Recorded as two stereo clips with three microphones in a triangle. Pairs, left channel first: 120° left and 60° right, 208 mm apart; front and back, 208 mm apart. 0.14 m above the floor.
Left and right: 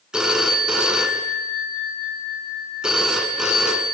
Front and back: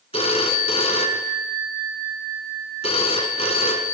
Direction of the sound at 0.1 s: 25° left.